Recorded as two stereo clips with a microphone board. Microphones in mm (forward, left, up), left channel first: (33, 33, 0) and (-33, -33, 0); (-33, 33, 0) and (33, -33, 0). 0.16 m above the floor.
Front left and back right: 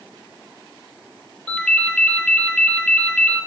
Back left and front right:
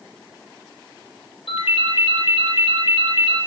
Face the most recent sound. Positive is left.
turn(degrees=125)